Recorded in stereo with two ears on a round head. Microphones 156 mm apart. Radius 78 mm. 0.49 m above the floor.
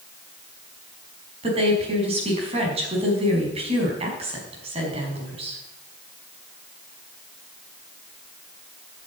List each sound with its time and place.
1.4 s a woman speaking: 35° right (ahead or behind), 5 m